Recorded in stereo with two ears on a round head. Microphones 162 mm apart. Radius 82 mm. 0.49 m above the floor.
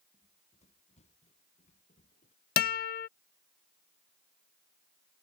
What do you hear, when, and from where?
0.1 s running footsteps: 35° left (ahead or behind); by 2.4 s 40° left (ahead or behind)
2.6 s a guitar: 55° left (ahead or behind)